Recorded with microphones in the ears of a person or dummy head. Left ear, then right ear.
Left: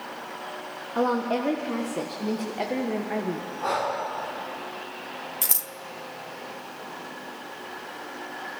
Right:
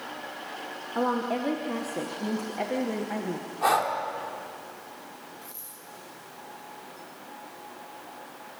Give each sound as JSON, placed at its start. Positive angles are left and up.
{"t": 0.9, "sound": "a woman speaking", "side_deg": 5, "distance_m": 1.4}
{"t": 3.6, "sound": "breathing", "side_deg": -55, "distance_m": 2.5}
{"t": 5.4, "sound": "scissors", "side_deg": 55, "distance_m": 0.8}